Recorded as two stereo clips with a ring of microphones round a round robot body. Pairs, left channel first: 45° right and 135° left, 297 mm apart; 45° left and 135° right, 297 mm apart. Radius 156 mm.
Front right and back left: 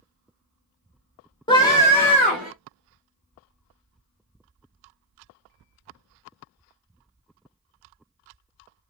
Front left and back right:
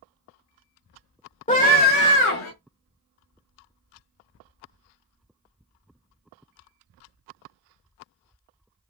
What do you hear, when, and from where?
1.5 s a scream: 10° left, 1.2 m; by 2.5 s 45° left, 1.5 m